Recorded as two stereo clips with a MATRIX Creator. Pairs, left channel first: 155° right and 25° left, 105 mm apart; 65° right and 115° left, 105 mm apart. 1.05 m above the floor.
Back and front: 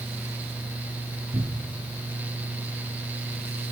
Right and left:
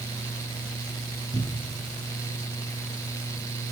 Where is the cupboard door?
10° right, 4 m.